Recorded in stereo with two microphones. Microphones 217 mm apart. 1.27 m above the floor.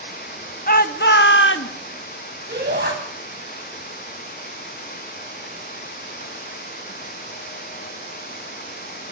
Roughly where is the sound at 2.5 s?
Right.